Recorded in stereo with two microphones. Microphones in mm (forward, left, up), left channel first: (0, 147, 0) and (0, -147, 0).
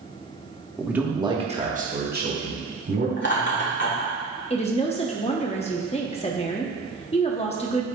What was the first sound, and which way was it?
A man speaking, centre (ahead or behind).